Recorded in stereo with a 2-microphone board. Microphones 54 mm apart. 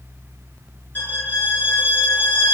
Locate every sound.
0.9 s a violin: 35° left (ahead or behind), 1.3 m